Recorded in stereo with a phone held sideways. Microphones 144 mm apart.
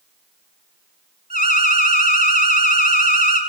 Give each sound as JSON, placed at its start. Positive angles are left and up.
{"t": 1.3, "sound": "an alarm", "side_deg": 70, "distance_m": 3.5}